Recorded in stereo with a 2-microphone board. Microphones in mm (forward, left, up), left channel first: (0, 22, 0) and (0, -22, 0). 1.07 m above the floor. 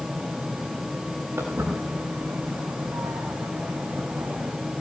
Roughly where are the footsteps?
Right.